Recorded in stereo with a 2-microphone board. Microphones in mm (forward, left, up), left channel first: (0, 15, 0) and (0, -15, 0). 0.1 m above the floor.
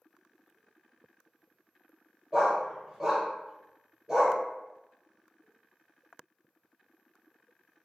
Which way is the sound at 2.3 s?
25° right (ahead or behind).